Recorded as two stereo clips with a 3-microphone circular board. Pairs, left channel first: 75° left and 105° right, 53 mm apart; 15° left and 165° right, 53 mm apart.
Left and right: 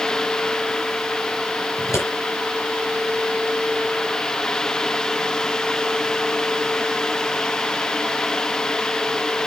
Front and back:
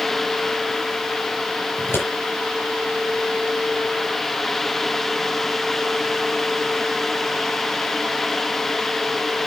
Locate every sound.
1.8 s scissors: 55° left, 5 m